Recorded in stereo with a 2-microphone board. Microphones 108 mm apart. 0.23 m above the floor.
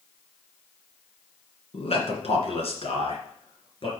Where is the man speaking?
65° left (ahead or behind), 2 m; by 3.9 s 55° left (ahead or behind), 3 m.